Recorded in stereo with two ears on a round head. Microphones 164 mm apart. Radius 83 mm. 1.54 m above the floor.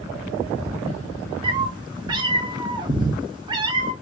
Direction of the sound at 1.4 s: 25° right (ahead or behind).